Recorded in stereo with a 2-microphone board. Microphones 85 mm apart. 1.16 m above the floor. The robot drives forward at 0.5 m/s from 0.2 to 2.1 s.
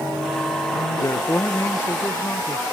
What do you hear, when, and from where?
1.0 s a man speaking: 30° left (ahead or behind), 0.7 m; by 2.6 s 25° left (ahead or behind), 0.9 m